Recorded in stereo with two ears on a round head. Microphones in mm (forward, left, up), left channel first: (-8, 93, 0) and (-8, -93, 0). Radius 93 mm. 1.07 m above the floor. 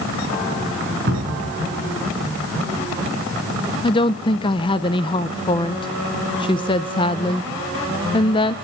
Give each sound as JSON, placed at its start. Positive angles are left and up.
{"t": 1.1, "sound": "a cupboard door", "side_deg": -50, "distance_m": 4.5}
{"t": 3.8, "sound": "a woman speaking", "side_deg": 25, "distance_m": 0.6}